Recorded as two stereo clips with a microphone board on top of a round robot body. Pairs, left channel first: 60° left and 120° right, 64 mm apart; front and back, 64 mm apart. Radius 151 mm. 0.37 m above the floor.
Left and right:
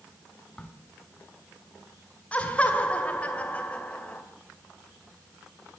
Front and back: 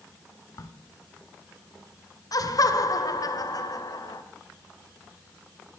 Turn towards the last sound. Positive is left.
turn(degrees=-10)